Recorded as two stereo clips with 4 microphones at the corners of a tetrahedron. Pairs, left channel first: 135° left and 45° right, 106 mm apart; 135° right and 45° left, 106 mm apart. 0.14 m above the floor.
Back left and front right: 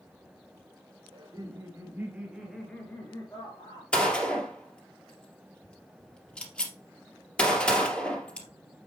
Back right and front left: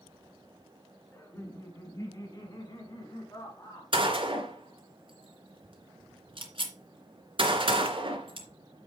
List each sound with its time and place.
1.1 s laughter: 75° right, 2 m; by 3.8 s 175° left, 2.5 m
3.9 s a gunshot: 55° left, 2.5 m